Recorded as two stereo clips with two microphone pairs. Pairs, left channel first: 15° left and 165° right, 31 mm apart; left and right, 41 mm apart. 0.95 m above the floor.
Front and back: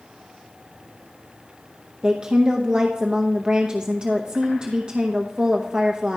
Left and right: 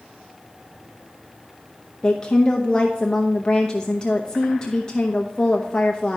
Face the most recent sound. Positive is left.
turn(degrees=150)